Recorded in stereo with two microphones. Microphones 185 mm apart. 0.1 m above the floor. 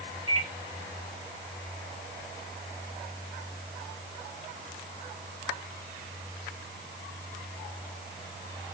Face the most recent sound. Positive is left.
turn(degrees=-25)  # may be behind; listen again after turning